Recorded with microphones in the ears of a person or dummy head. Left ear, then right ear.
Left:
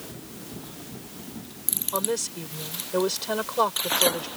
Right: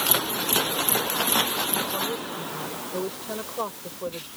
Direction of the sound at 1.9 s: 85° left.